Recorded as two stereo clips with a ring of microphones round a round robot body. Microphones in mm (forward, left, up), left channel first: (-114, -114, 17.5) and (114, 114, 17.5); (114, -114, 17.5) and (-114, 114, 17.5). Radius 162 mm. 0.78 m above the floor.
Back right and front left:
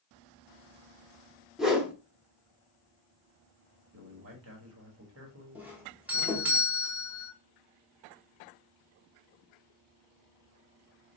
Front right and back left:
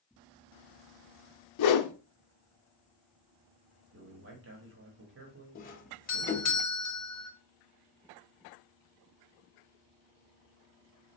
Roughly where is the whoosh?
Ahead right.